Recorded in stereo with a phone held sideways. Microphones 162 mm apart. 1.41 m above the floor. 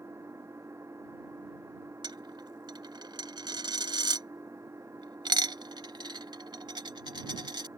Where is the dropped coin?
25° right (ahead or behind).